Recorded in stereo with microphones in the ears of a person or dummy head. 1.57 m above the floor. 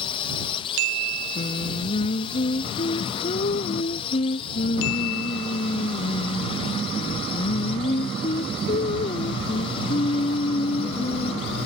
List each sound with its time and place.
0.0 s a drone: 20° left (ahead or behind)
1.4 s singing: 40° left (ahead or behind)